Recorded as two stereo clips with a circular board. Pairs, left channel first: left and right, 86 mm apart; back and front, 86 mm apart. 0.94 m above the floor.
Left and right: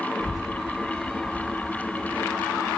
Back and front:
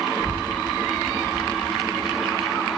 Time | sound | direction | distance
0.2 | a child speaking | 10° left | 0.5 m